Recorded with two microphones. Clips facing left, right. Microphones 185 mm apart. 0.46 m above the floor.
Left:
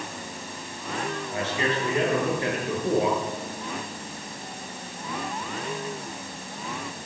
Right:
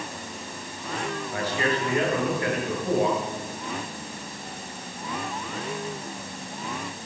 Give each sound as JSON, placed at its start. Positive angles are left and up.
{"t": 1.3, "sound": "a man speaking", "side_deg": 25, "distance_m": 6.0}